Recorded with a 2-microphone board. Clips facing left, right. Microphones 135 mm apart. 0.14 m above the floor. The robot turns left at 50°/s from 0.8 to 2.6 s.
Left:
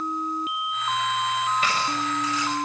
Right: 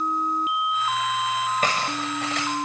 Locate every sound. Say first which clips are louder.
1.6 s cutlery clinking: even; 40° right, 6.5 m; by 2.5 s 85° right, 6.5 m